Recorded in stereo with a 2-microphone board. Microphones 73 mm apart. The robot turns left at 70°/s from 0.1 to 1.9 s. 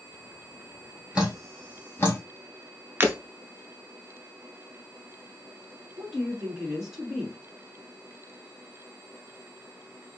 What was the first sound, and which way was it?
Dripping, 15° right (ahead or behind).